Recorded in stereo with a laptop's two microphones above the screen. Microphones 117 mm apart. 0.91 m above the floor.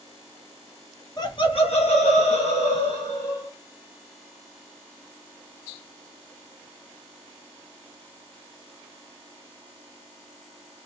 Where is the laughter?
35° left (ahead or behind), 1.1 m; by 3.5 s 45° left (ahead or behind), 1.8 m.